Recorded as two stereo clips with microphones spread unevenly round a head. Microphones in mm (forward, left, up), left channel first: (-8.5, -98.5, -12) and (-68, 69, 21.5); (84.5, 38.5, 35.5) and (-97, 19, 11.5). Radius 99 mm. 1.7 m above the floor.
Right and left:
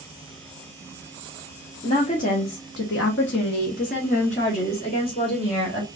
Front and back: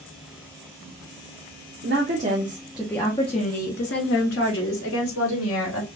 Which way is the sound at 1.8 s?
130° right.